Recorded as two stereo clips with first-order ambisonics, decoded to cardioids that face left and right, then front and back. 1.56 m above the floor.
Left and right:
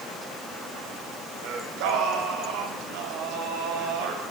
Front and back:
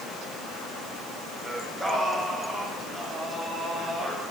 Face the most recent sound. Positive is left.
turn(degrees=-90)